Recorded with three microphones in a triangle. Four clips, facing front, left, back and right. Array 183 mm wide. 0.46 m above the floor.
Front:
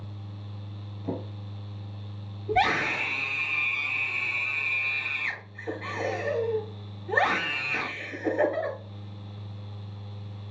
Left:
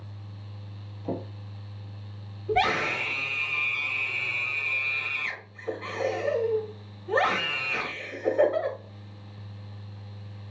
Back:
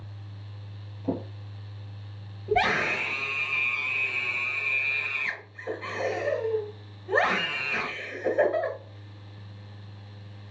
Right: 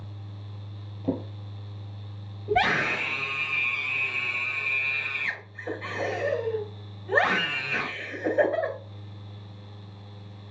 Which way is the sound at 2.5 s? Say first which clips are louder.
Right 1 dB, even; 100° right.